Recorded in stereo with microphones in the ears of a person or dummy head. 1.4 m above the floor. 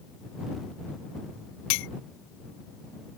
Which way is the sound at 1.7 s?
60° left (ahead or behind).